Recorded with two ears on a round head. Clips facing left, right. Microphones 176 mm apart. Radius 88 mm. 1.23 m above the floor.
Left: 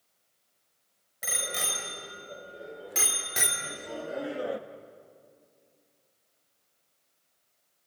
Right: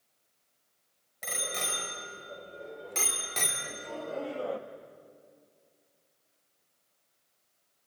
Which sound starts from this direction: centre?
A bicycle bell, at 1.2 s.